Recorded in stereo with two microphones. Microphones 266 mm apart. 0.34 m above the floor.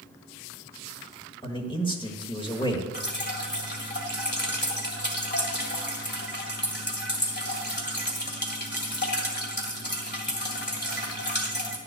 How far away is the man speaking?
About 1.2 m.